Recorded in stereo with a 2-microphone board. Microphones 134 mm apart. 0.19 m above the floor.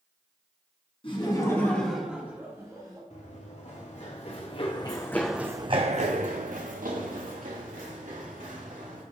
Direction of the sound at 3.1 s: 60° left (ahead or behind).